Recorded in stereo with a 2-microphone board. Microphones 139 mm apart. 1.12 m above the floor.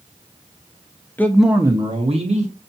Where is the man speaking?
15° left (ahead or behind), 0.5 m; by 2.5 s 55° right (ahead or behind), 0.9 m.